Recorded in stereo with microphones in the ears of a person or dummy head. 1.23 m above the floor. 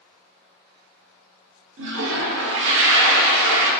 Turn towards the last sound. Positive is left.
turn(degrees=-65)  # may be behind; listen again after turning